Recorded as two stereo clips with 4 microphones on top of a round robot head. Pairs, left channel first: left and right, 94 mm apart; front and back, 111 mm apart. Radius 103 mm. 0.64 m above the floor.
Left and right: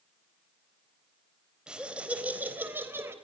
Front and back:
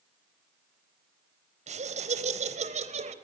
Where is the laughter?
170° right, 3.5 m; by 3.1 s 160° right, 3 m.